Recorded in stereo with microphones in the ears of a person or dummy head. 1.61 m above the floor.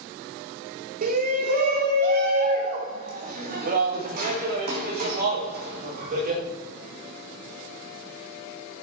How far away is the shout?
About 1.4 m.